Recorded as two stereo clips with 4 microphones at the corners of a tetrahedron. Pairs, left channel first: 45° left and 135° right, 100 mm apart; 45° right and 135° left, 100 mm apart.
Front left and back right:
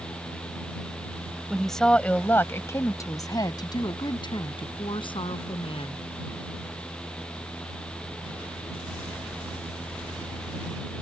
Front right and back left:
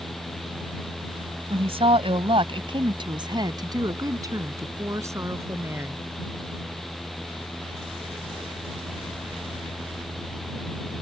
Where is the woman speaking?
135° left; by 6.0 s 70° left.